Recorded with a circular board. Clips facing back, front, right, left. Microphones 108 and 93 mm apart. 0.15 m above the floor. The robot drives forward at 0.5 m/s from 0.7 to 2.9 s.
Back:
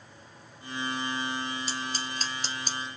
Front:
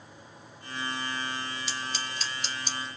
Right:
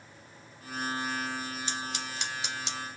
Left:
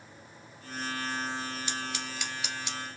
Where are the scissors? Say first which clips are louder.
Back 2 dB, even; 145° right, 2 m; by 2.9 s 155° right, 2.5 m.